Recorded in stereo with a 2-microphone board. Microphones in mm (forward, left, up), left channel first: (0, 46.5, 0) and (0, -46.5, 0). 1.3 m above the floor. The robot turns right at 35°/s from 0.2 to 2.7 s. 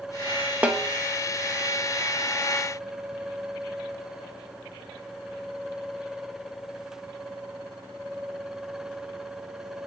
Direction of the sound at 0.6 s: 15° right (ahead or behind).